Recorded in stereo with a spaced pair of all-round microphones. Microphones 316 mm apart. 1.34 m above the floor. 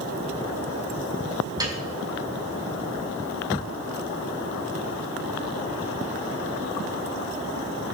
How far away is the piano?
About 3.5 m.